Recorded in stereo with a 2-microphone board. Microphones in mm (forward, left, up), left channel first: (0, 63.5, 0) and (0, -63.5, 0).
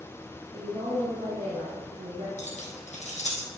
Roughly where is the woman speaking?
Right.